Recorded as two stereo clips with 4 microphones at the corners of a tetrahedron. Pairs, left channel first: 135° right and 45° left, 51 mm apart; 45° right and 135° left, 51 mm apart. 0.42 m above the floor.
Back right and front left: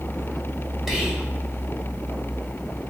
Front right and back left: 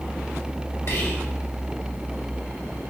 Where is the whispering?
45° right, 1.8 m.